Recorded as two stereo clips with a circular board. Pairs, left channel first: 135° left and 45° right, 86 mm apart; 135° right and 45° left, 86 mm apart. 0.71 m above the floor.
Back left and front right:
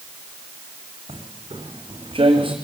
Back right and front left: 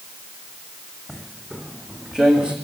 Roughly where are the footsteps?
Ahead right.